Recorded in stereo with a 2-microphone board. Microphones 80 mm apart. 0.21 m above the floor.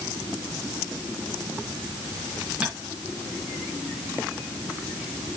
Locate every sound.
2.6 s tapping: 15° right (ahead or behind), 2.5 m